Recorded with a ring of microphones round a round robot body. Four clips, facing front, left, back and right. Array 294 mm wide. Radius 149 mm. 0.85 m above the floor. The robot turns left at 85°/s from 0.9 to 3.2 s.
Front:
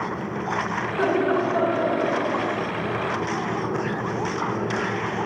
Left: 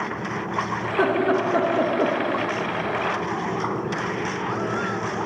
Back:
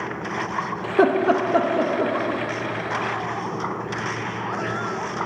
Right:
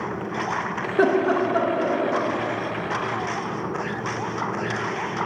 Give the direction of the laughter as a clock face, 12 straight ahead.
5 o'clock.